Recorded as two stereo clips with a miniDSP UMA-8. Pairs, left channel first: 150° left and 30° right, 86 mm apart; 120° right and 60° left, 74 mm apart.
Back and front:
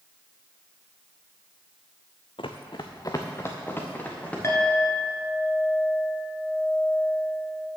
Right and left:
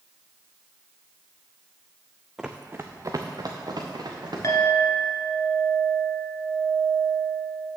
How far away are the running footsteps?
About 0.8 m.